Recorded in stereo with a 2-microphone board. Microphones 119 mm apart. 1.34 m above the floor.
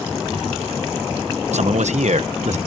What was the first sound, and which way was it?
A man speaking, 70° right (ahead or behind).